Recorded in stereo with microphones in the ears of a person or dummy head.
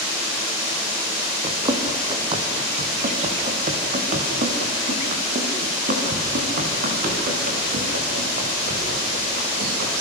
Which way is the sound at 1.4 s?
25° right (ahead or behind).